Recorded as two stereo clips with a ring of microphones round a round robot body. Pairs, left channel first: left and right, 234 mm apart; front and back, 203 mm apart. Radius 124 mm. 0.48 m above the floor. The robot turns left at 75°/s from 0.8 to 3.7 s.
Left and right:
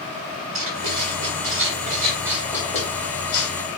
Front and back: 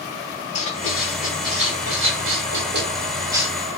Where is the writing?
60° right, 2.5 m; by 3.5 s 100° left, 2.5 m.